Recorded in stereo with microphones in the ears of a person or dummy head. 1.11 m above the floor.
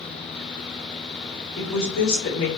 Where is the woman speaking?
85° left, 3.5 m.